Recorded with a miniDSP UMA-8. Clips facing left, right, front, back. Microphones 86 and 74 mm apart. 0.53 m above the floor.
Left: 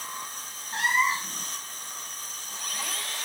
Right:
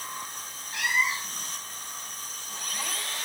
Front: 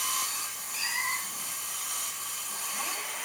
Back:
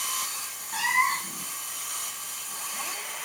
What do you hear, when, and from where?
0.7 s a cat meowing: 150° left, 2.5 m